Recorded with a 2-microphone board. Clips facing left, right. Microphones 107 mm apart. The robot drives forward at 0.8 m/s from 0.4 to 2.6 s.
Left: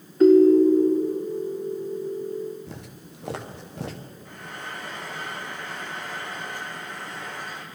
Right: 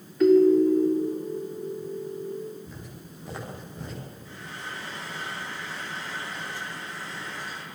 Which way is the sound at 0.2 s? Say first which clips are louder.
Left 3 dB; 40° left (ahead or behind).